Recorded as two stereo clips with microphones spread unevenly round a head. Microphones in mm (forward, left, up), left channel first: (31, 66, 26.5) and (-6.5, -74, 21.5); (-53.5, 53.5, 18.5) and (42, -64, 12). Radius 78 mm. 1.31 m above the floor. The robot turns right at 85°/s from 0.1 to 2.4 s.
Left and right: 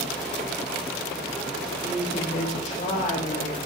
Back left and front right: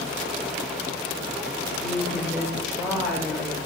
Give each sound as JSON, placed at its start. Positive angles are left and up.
{"t": 1.8, "sound": "a woman speaking", "azimuth_deg": -5, "distance_m": 5.0}